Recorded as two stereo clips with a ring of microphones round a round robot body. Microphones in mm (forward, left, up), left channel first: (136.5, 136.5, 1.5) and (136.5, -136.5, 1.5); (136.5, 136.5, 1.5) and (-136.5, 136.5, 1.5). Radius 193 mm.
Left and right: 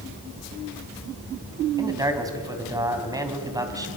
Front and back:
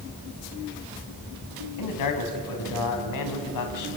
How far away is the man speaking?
About 3.5 m.